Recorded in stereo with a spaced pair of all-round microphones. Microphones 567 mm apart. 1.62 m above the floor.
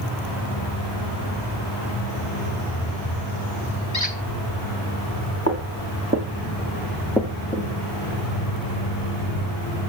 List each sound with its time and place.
3.9 s a squeak: 30° left (ahead or behind), 1.6 m
5.5 s footsteps: 25° right (ahead or behind), 2.5 m; by 7.7 s 15° left (ahead or behind), 1.6 m